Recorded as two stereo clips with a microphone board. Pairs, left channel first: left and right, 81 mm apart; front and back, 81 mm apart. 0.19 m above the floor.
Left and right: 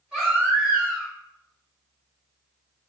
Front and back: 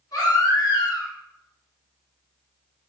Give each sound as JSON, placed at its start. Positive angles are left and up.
{"t": 0.1, "sound": "a baby crying", "azimuth_deg": -5, "distance_m": 1.4}